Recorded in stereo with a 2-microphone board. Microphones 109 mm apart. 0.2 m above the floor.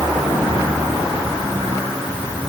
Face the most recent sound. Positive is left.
No sound to turn to.